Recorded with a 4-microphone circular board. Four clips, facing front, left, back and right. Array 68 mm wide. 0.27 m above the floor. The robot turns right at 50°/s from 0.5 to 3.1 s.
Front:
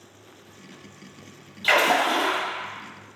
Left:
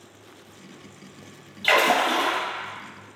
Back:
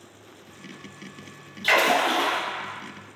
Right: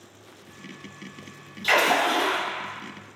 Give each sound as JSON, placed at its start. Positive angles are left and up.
{"t": 1.6, "sound": "a splash", "azimuth_deg": 80, "distance_m": 1.0}